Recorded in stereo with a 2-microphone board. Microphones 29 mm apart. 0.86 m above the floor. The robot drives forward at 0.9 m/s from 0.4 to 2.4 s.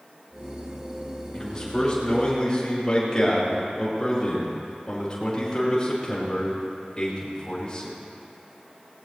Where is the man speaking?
20° left (ahead or behind), 5.5 m; by 8.0 s 25° left (ahead or behind), 5 m.